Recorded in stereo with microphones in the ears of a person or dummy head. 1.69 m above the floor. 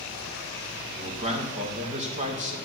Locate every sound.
0.9 s a man speaking: 30° right (ahead or behind), 1.9 m